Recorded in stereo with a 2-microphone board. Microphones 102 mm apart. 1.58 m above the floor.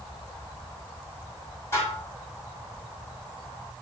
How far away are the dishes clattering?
About 3.5 m.